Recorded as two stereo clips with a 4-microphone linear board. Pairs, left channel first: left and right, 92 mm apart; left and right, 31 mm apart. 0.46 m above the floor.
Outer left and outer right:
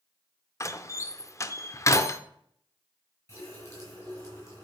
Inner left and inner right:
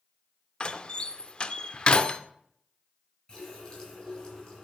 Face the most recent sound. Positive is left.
turn(degrees=25)  # may be behind; listen again after turning